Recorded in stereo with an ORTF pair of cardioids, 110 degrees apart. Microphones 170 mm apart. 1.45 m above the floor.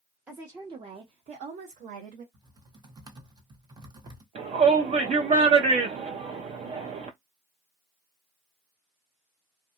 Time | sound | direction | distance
0.3 | a woman speaking | 10° right | 0.7 m
2.3 | typing on a keyboard | 25° right | 0.8 m
4.3 | a shout | 45° right | 0.6 m